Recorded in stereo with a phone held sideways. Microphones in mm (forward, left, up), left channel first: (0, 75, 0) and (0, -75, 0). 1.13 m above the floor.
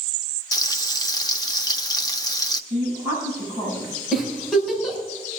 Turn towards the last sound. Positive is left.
turn(degrees=0)  # may be behind; listen again after turning